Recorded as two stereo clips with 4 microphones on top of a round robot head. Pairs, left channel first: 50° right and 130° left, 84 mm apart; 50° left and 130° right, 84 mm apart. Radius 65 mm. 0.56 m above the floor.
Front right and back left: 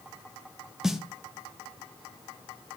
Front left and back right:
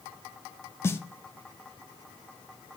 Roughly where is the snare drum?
Ahead left.